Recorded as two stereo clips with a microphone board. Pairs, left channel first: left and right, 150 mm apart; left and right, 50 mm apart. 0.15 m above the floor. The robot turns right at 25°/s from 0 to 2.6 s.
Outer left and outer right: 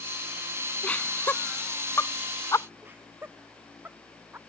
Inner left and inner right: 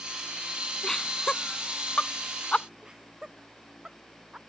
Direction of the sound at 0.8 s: 10° left (ahead or behind).